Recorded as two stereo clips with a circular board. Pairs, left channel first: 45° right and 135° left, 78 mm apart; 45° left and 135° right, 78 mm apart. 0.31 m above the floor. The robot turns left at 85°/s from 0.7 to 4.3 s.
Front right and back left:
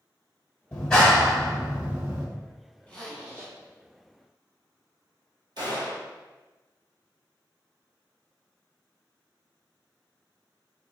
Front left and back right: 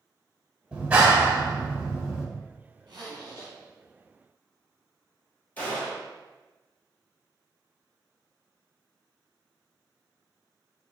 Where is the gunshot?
115° left, 1.4 m.